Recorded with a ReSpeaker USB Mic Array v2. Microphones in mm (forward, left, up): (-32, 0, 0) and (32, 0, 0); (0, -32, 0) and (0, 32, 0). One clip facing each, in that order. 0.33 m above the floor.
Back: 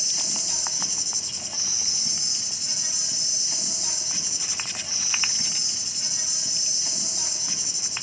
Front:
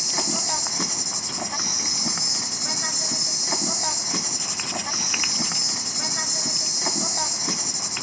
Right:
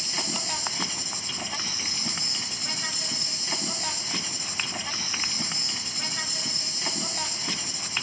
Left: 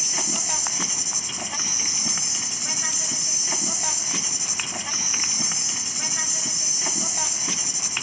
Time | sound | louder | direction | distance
0.0 | an insect | front 10 dB, left 1 dB | 10° left | 0.8 m